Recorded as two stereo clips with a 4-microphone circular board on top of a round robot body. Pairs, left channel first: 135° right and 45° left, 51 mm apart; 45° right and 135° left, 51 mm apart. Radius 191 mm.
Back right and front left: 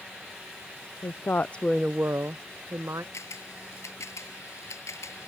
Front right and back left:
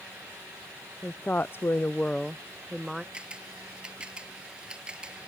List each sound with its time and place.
1.0 s a woman speaking: 105° right; by 3.0 s 45° left
3.1 s a camera shutter: 155° right